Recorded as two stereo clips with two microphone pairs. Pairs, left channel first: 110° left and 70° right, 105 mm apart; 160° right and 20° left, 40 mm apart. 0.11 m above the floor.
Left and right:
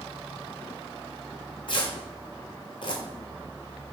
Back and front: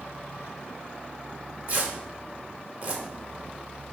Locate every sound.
1.7 s tearing paper: 70° left, 1.2 m